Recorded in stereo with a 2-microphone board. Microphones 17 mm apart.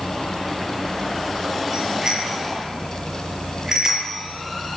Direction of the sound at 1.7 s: 35° right (ahead or behind).